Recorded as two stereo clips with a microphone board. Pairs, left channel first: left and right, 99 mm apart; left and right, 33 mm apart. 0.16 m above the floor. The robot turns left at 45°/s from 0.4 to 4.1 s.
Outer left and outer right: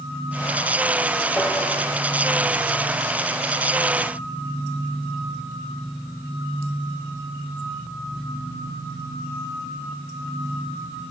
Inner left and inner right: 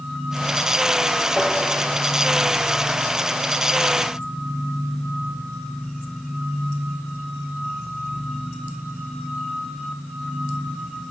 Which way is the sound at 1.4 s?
10° left (ahead or behind).